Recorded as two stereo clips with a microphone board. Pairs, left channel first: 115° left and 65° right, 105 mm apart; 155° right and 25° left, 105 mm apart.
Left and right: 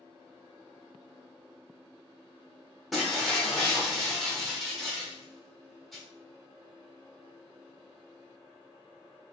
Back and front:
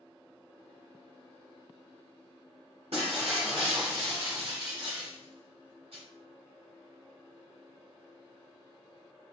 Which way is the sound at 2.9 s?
25° left.